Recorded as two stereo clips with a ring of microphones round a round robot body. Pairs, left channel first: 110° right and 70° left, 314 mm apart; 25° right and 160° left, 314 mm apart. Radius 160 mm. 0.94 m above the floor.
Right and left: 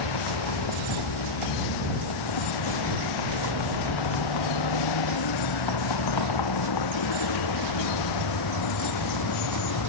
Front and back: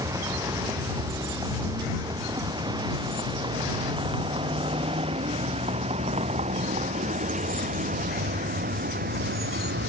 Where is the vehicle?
125° right; by 9.9 s 145° right.